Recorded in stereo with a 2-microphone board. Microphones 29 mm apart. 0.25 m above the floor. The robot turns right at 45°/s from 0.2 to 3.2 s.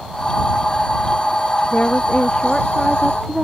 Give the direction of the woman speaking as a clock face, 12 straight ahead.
8 o'clock.